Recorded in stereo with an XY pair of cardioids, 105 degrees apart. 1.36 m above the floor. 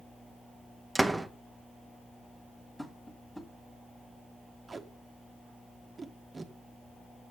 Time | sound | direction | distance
0.9 | a door slam | 15° right | 1.0 m
2.8 | tapping | 10° left | 2 m
4.7 | tape being pulled | 25° right | 1.3 m